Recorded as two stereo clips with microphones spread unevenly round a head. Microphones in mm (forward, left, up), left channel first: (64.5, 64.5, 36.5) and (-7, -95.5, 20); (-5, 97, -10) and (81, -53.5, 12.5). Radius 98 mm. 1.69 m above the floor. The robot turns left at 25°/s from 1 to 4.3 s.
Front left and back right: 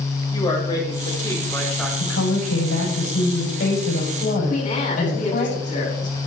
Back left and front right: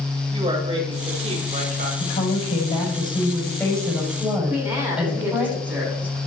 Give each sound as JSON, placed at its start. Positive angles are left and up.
{"t": 0.3, "sound": "a woman speaking", "azimuth_deg": 0, "distance_m": 5.0}
{"t": 2.0, "sound": "a woman speaking", "azimuth_deg": 80, "distance_m": 7.0}
{"t": 4.5, "sound": "a woman speaking", "azimuth_deg": 20, "distance_m": 7.0}